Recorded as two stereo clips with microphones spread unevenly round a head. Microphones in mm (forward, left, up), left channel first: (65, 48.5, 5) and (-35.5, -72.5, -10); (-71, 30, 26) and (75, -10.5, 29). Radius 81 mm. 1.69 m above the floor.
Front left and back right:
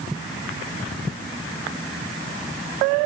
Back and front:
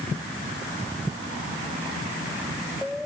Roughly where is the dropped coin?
No dropped coin in this recording.